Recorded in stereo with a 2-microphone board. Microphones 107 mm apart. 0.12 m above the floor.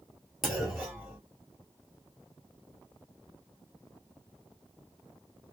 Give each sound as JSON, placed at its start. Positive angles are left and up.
{"t": 0.4, "sound": "a clunk", "side_deg": 0, "distance_m": 1.6}